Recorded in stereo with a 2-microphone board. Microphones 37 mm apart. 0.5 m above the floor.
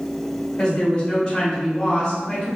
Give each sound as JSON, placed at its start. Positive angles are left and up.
{"t": 0.6, "sound": "a woman speaking", "side_deg": 25, "distance_m": 1.6}